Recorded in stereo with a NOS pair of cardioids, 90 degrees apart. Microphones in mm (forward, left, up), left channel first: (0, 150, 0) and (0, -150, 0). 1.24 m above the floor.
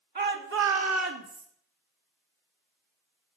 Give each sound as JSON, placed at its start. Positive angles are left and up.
{"t": 0.1, "sound": "a shout", "azimuth_deg": -30, "distance_m": 3.0}